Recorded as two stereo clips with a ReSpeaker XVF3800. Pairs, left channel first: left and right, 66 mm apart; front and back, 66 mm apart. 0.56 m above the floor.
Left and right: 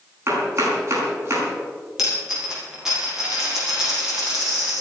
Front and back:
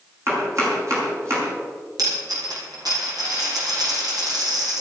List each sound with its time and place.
0.3 s chopping: 140° right, 6 m
2.0 s a dropped coin: 170° right, 6 m